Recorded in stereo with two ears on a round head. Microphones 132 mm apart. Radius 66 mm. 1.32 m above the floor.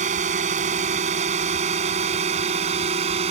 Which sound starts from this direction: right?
A drone, at 0.0 s.